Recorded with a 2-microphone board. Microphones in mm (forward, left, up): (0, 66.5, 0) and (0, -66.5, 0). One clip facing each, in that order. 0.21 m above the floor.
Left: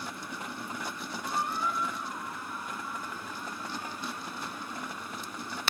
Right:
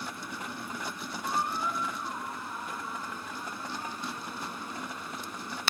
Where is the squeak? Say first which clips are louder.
Right 1 dB; 30° right (ahead or behind), 1.2 m.